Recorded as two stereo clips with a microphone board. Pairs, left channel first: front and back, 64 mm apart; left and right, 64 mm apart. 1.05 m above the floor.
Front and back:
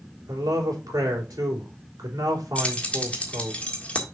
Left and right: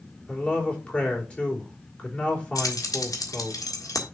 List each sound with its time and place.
0.3 s a man speaking: 160° left, 3 m
2.5 s keys jangling: 70° left, 1.7 m